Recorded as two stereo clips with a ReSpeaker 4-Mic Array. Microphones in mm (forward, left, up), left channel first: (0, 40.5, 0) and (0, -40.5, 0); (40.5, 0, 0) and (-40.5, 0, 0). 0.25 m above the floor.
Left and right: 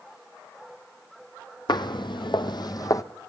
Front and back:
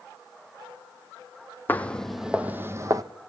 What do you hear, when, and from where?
1.7 s footsteps: 65° left, 0.7 m; by 3.0 s 135° left, 0.8 m